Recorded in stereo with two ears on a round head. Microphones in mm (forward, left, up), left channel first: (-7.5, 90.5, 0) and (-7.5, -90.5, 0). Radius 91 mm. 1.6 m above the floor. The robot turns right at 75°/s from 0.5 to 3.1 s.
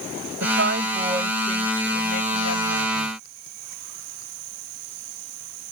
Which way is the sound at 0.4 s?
65° right.